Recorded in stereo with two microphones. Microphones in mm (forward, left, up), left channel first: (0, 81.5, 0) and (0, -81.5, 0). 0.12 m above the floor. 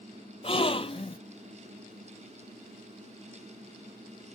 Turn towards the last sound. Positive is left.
turn(degrees=40)  # may be behind; listen again after turning